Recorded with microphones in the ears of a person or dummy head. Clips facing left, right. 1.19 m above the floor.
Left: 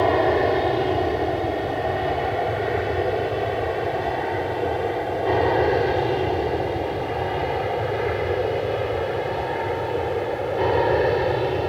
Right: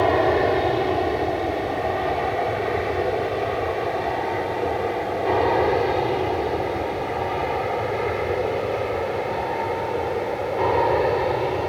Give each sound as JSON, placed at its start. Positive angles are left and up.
{"t": 0.0, "sound": "an aircraft", "side_deg": 0}